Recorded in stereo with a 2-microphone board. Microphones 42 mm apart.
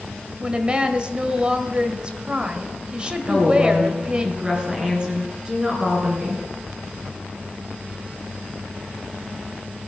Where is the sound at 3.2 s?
20° right (ahead or behind), 3.5 m.